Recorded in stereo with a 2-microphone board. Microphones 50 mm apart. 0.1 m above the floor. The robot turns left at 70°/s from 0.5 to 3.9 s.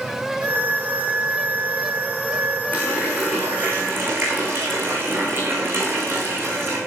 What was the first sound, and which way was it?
A running tap, 35° left.